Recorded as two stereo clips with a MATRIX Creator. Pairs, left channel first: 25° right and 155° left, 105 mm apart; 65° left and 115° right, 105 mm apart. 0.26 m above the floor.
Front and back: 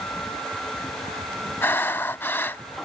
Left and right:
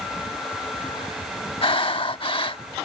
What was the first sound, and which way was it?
Breathing, 45° left.